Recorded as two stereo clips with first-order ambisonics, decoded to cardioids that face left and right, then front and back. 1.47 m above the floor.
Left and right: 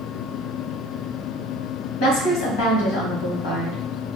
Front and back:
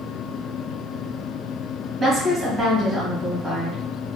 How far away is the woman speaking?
About 1.9 m.